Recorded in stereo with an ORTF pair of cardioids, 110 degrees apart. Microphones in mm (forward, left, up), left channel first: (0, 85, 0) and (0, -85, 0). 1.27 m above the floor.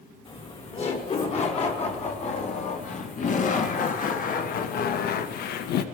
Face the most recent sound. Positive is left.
turn(degrees=75)